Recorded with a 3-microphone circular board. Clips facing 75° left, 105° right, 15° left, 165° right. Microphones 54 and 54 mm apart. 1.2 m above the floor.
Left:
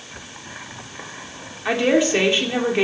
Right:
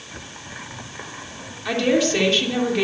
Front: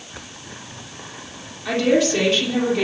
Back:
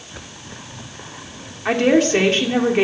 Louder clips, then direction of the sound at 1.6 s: Left 2 dB, back 2 dB; 145° left.